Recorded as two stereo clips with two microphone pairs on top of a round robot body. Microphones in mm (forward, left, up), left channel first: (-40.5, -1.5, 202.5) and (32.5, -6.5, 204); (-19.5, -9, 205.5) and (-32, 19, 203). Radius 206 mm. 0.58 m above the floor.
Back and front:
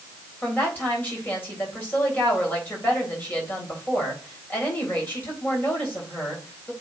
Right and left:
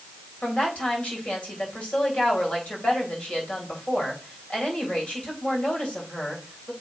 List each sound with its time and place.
0.4 s a woman speaking: 115° right, 3.5 m